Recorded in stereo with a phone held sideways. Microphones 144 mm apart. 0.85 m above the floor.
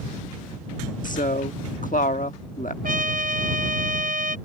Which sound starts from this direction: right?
A trumpet, at 2.8 s.